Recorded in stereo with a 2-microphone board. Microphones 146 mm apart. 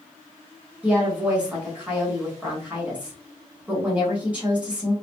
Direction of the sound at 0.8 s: 10° right (ahead or behind).